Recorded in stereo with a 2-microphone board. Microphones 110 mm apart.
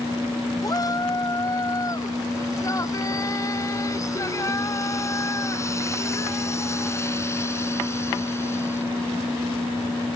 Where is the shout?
35° left (ahead or behind); by 8.8 s 25° left (ahead or behind).